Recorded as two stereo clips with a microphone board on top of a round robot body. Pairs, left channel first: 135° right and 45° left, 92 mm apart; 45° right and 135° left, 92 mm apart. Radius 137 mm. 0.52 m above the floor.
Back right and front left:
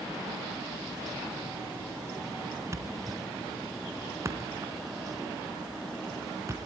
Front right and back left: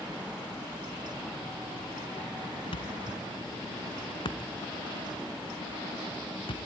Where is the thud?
15° right, 2.5 m.